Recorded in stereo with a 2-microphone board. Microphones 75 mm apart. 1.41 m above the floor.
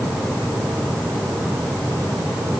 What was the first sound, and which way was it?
Only background noise.